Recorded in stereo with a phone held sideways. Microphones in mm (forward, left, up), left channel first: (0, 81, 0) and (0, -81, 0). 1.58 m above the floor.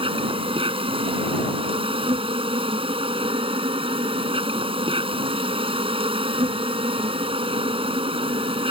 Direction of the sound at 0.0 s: 35° right (ahead or behind).